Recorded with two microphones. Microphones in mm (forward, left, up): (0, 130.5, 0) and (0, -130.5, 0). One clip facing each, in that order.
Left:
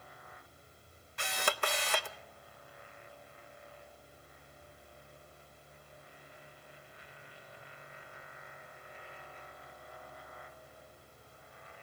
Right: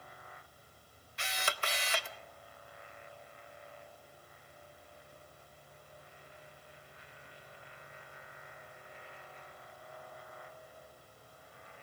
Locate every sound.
1.2 s a camera shutter: 55° left (ahead or behind), 0.7 m